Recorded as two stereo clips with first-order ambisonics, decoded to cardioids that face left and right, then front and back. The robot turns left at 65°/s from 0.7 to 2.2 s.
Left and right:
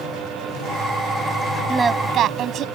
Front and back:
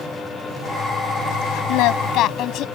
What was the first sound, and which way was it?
Singing, 10° right.